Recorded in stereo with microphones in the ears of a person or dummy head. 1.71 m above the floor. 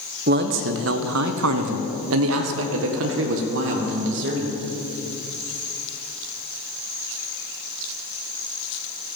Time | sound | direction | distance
0.3 | a man speaking | 40° right (ahead or behind) | 1.0 m